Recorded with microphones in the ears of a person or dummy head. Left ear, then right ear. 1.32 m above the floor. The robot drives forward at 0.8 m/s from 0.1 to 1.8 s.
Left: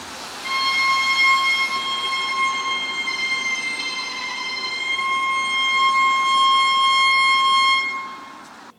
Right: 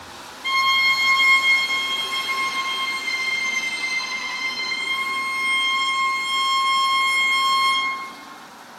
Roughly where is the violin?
Right.